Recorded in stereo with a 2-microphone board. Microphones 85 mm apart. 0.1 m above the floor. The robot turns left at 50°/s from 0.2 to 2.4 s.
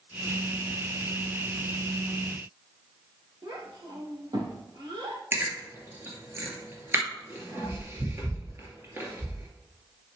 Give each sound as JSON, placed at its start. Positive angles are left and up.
{"t": 3.4, "sound": "a child speaking", "side_deg": -70, "distance_m": 3.0}
{"t": 5.3, "sound": "chewing", "side_deg": -30, "distance_m": 2.5}